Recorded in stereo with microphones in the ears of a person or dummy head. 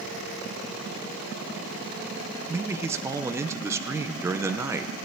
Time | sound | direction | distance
2.5 | a man speaking | 15° right (ahead or behind) | 0.8 m